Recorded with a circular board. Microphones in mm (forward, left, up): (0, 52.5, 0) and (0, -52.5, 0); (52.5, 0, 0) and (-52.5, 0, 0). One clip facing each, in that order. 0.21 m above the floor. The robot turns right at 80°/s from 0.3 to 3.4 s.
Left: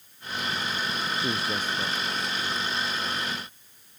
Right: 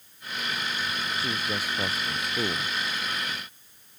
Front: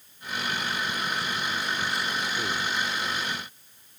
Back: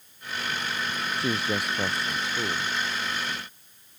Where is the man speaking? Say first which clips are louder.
Left 2 dB, back 3 dB; 155° left; by 2.8 s 80° right.